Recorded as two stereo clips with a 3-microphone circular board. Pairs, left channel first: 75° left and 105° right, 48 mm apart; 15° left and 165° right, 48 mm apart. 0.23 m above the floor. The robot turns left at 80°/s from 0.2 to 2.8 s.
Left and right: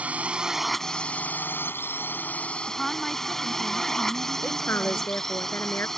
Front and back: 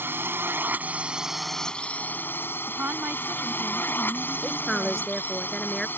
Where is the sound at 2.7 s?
165° left; by 5.2 s 155° left.